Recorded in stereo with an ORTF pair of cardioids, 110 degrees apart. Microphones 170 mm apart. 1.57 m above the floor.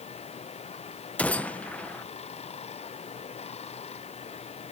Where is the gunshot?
10° left.